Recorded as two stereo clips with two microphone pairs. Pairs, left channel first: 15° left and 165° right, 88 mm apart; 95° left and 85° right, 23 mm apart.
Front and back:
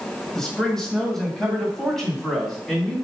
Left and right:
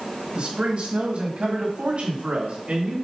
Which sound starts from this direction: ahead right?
A man speaking, at 0.3 s.